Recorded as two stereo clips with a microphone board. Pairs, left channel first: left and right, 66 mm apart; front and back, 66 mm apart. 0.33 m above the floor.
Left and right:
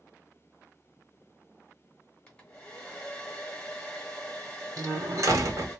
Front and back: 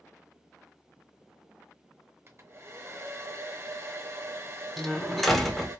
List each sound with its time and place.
2.3 s a hair dryer: 160° left, 1.1 m
4.8 s a door slam: 90° right, 1.1 m